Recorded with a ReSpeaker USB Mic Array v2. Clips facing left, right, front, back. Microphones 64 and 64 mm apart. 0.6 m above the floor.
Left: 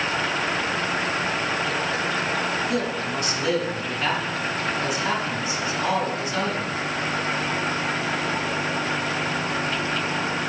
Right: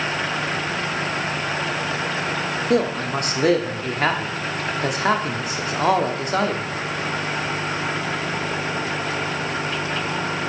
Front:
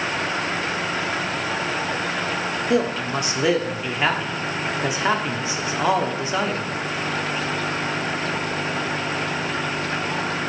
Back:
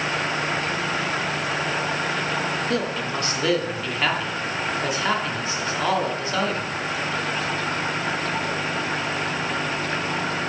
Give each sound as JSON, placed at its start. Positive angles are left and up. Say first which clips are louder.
{"t": 2.7, "sound": "a man speaking", "louder": "right 5 dB, front 4 dB", "azimuth_deg": -70, "distance_m": 0.9}